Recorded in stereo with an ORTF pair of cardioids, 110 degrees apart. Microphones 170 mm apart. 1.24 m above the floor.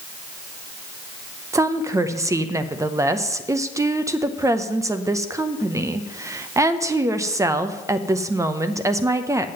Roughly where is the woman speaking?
Ahead.